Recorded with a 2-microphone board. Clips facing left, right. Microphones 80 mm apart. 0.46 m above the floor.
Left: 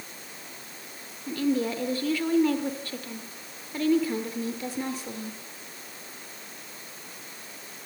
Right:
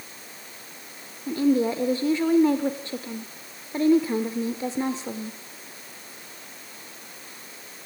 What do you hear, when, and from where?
1.3 s a woman speaking: 25° right (ahead or behind), 1.0 m